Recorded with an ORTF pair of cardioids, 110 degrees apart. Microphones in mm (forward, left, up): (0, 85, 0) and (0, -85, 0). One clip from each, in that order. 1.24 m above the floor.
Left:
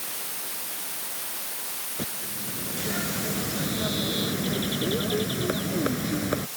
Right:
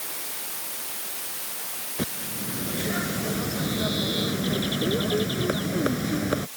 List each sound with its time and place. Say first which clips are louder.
2.0 s a bird: right 5 dB; 30° right